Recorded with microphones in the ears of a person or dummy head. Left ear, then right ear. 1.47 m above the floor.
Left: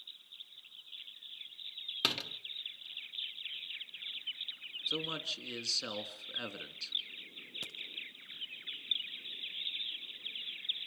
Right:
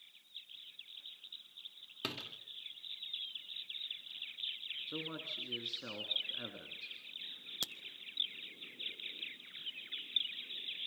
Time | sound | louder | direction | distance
2.0 | a door slam | left 8 dB | 30° left (ahead or behind) | 1.5 m
4.9 | a man speaking | left 6 dB | 70° left (ahead or behind) | 3 m
7.6 | a crack | right 7 dB | 35° right (ahead or behind) | 1.4 m